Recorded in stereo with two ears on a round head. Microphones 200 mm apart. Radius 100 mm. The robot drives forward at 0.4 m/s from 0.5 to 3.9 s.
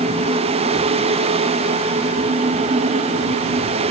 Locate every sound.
Only background noise.